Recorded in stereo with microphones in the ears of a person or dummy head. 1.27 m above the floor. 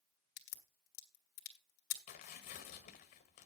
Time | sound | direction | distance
0.4 | a crack | 70° left (ahead or behind) | 2 m
2.1 | tearing paper | 40° left (ahead or behind) | 1.5 m